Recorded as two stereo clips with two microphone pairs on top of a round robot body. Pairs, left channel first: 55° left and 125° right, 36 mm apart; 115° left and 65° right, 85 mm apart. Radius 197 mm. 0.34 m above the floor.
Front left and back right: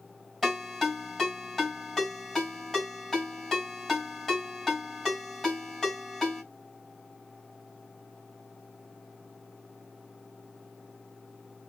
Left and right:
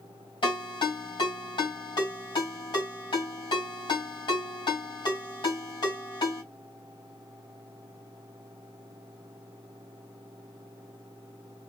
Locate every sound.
0.4 s a ringtone: 140° left, 3 m